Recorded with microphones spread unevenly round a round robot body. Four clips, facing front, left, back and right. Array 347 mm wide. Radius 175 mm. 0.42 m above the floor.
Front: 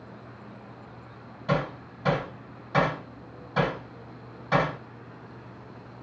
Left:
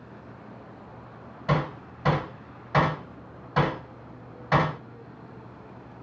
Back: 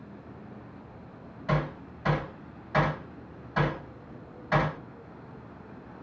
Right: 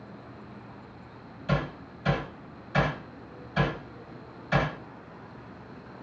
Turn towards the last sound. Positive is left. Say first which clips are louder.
# left 3 dB, front 2 dB
turn(degrees=65)